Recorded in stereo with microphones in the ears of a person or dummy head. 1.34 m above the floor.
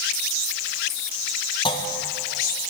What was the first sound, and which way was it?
A clunk, 30° left (ahead or behind).